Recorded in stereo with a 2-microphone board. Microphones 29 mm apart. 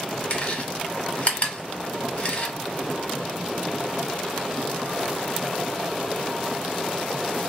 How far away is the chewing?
About 1.0 m.